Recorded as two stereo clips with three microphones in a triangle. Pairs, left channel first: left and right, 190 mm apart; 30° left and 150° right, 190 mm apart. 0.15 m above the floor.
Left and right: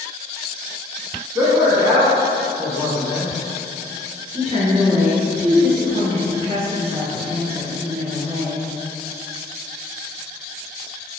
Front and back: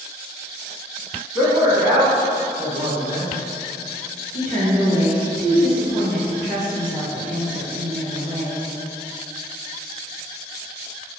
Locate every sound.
1.4 s a man speaking: 120° right, 1.1 m
4.3 s a woman speaking: 135° right, 1.8 m